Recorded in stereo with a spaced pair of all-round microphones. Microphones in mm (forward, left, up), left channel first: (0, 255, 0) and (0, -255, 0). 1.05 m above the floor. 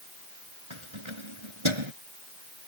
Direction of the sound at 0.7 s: 65° right (ahead or behind).